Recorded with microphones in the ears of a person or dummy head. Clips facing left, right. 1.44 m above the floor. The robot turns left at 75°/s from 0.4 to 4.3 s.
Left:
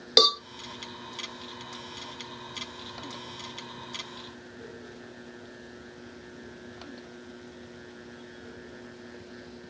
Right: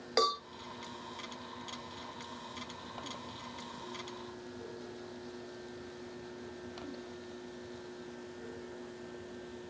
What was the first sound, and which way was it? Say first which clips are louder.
A cowbell: left 6 dB; 50° left (ahead or behind).